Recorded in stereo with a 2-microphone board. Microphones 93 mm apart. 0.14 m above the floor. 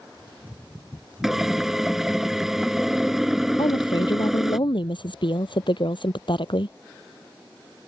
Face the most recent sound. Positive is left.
turn(degrees=60)  # may be behind; listen again after turning